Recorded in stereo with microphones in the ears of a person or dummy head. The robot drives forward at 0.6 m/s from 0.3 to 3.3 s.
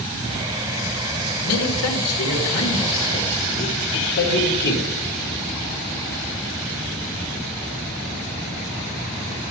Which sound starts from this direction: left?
A man speaking, at 1.4 s.